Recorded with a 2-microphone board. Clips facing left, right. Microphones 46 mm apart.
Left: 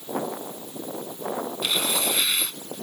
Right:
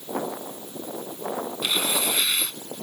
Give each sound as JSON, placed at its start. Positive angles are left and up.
{"t": 1.6, "sound": "tearing paper", "side_deg": -5}